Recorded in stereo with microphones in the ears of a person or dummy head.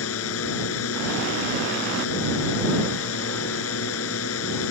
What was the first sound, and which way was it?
A drone, 75° left (ahead or behind).